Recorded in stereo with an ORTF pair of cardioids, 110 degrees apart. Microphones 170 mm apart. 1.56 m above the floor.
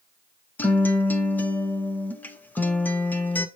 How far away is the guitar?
About 0.9 m.